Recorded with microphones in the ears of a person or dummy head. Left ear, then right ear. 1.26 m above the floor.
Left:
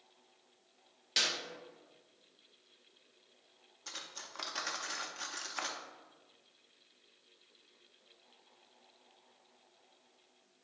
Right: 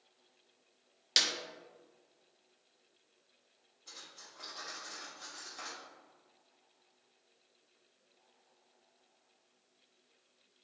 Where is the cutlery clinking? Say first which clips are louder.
Left 6 dB; 45° left (ahead or behind), 0.5 m.